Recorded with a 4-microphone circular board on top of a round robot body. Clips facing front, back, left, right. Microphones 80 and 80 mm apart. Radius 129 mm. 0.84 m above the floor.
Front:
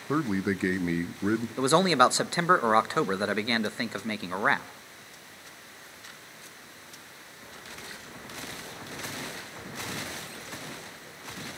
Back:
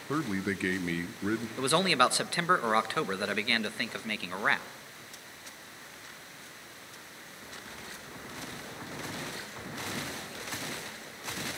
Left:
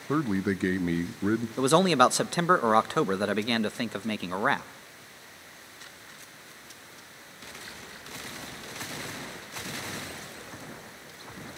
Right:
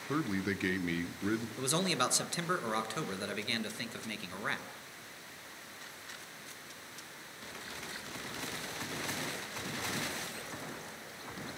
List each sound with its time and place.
0.1 s a man speaking: 60° left, 0.8 m
1.6 s a man speaking: 65° left, 0.8 m